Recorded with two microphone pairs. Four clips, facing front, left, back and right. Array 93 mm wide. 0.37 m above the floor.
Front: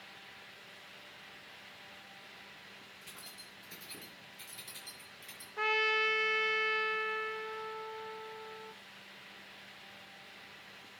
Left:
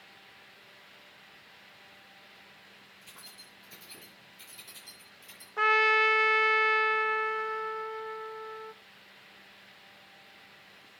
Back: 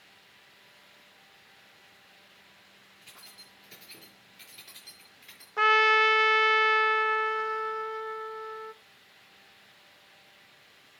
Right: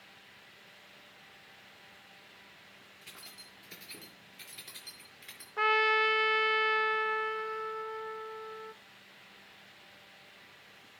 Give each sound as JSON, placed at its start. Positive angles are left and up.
{"t": 3.0, "sound": "keys jangling", "azimuth_deg": -80, "distance_m": 5.5}
{"t": 5.6, "sound": "a trumpet", "azimuth_deg": 175, "distance_m": 0.5}